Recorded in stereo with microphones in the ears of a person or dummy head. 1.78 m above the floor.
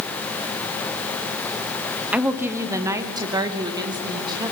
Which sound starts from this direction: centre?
A woman speaking, at 2.1 s.